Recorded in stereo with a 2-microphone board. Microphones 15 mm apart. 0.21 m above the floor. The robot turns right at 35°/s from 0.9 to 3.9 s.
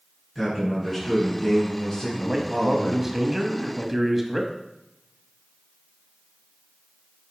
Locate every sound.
0.3 s a man speaking: straight ahead, 2.5 m; by 3.1 s 75° left, 2.5 m
2.1 s a man speaking: 20° right (ahead or behind), 1.0 m; by 4.5 s 15° right (ahead or behind), 1.0 m